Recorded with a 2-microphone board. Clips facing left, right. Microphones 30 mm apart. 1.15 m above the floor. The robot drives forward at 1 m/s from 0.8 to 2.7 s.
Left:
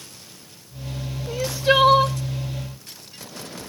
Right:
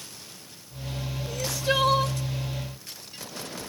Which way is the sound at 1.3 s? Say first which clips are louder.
Left 7 dB; 30° left (ahead or behind).